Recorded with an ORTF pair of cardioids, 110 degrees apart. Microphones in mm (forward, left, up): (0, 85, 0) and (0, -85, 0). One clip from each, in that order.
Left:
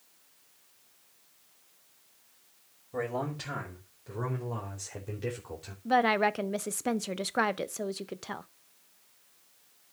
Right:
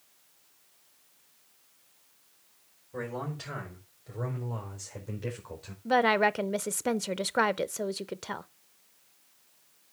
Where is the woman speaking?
10° right, 0.6 m.